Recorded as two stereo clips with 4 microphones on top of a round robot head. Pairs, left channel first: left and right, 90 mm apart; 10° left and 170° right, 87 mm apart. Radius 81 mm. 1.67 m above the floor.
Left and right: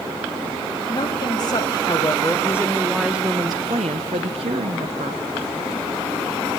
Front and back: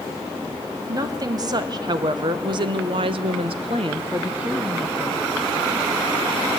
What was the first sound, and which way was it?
A woman speaking, 145° left.